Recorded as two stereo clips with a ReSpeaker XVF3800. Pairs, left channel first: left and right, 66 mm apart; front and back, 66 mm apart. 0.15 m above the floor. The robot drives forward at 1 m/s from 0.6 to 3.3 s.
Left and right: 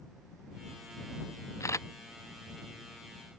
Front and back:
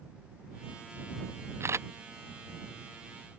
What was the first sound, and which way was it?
A camera shutter, 130° left.